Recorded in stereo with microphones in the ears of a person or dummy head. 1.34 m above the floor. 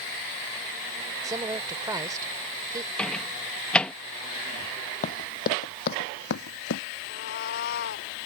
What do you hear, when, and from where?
1.2 s a woman speaking: 20° right (ahead or behind)
3.0 s a microwave: 5° left (ahead or behind)
5.0 s running footsteps: 45° left (ahead or behind); by 6.8 s 65° left (ahead or behind)
7.0 s a cat meowing: 60° left (ahead or behind)